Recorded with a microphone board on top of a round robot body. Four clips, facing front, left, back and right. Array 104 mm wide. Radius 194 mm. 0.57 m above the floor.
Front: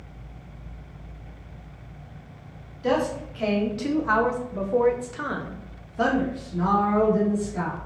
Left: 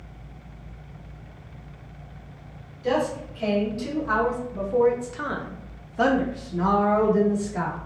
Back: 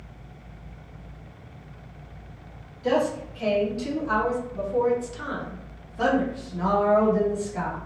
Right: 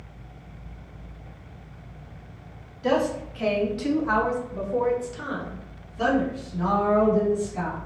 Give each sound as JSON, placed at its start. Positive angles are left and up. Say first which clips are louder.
{"t": 2.8, "sound": "a woman speaking", "louder": "right 1 dB, even", "azimuth_deg": -50, "distance_m": 1.5}